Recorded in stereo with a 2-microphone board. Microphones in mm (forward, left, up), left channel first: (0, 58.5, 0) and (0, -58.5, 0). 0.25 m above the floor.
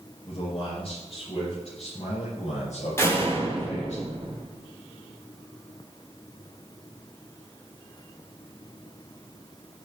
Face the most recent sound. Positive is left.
turn(degrees=20)  # may be behind; listen again after turning